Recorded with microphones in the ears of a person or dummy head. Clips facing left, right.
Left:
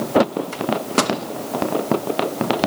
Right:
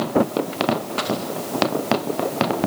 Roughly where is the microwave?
Left.